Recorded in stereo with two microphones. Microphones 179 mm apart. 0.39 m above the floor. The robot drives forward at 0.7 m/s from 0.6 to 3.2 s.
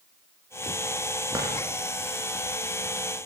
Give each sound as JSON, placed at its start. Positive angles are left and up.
{"t": 1.3, "sound": "a drawer", "side_deg": -20, "distance_m": 8.0}